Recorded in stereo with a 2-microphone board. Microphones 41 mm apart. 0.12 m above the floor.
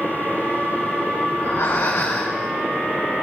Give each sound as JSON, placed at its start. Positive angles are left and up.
{"t": 1.3, "sound": "breathing", "side_deg": 80, "distance_m": 6.0}